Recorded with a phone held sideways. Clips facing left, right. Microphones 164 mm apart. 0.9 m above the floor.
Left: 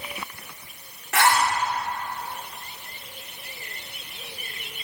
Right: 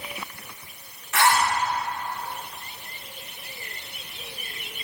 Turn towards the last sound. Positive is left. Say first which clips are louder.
# even
turn(degrees=80)